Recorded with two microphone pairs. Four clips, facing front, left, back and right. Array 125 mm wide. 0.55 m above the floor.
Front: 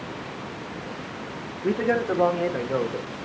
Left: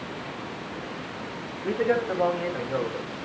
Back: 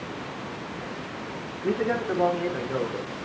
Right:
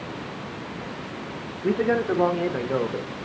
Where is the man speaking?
35° right, 1.4 m; by 3.2 s 65° right, 2.5 m.